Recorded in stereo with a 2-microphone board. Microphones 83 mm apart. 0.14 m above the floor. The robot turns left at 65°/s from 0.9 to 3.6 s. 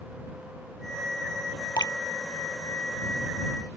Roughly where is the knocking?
I don't hear knocking.